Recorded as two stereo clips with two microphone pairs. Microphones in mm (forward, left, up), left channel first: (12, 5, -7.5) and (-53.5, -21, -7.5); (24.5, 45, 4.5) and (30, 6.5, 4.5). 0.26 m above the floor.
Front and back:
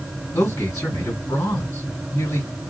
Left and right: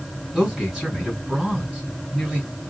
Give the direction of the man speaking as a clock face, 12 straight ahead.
12 o'clock.